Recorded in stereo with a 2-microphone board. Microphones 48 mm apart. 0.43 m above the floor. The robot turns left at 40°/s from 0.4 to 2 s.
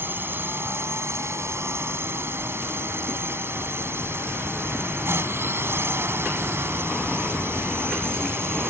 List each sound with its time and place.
0.0 s a drone: 50° right; by 8.7 s 115° right